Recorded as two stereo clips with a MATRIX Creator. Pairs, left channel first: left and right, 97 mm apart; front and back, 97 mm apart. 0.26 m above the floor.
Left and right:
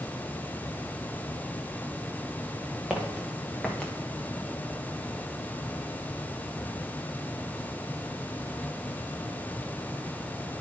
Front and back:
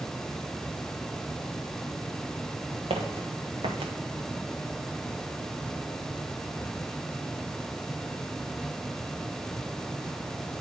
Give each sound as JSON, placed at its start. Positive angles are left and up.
{"t": 2.9, "sound": "footsteps", "azimuth_deg": -175, "distance_m": 1.5}